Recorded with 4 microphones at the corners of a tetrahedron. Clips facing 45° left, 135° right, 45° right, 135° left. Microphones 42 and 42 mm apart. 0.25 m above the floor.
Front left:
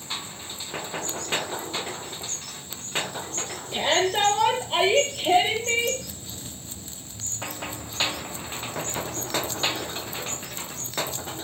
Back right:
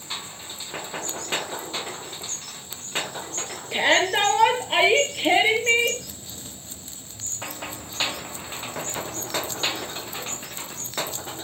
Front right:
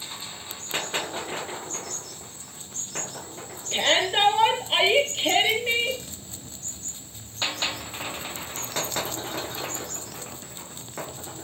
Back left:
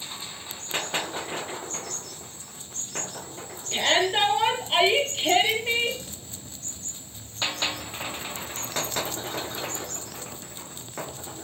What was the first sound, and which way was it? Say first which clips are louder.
A shout: back right 3 dB, even; 130° right.